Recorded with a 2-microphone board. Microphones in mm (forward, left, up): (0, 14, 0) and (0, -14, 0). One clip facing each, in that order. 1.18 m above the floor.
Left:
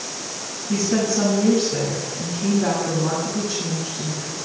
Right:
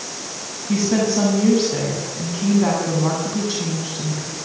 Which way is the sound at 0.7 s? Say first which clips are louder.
Right 2 dB; 30° right (ahead or behind).